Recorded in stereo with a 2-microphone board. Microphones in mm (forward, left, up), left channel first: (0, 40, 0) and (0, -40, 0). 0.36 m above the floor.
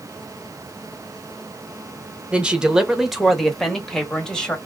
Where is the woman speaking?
15° right (ahead or behind), 0.9 m; by 4.6 s 10° left (ahead or behind), 1.5 m.